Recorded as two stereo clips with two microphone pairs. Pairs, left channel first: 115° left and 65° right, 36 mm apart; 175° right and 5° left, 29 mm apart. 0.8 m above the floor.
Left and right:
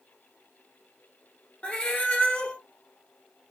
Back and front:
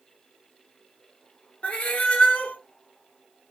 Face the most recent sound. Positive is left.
turn(degrees=170)